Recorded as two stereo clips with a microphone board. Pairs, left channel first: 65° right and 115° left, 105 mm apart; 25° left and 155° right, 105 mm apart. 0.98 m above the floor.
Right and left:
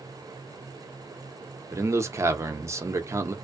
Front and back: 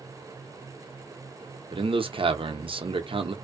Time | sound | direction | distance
1.7 | a man speaking | 175° left | 0.6 m